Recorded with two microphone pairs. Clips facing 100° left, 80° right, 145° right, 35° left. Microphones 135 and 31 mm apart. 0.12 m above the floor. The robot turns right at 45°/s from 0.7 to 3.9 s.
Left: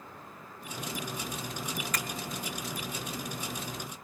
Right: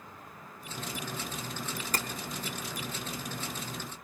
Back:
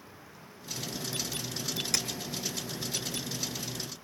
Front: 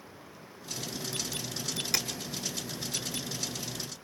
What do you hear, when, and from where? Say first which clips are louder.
1.9 s tapping: right 5 dB, front 1 dB; 45° right, 0.9 m; by 2.1 s 40° right, 0.9 m